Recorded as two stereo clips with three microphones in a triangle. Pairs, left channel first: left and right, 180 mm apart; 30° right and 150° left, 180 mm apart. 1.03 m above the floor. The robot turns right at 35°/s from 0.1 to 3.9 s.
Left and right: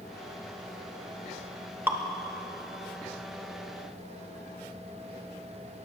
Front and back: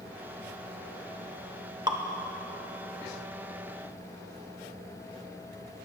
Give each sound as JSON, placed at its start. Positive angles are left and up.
{"t": 1.9, "sound": "dripping", "azimuth_deg": -160, "distance_m": 0.8}